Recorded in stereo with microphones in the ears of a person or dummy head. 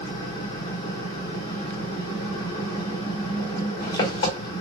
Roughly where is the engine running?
Left.